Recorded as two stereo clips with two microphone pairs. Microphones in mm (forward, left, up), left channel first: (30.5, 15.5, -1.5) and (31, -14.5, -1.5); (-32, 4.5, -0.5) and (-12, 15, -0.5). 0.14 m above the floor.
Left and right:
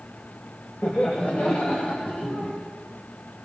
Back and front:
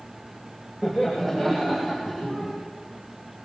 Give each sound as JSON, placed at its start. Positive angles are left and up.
{"t": 0.8, "sound": "laughter", "azimuth_deg": 120, "distance_m": 5.5}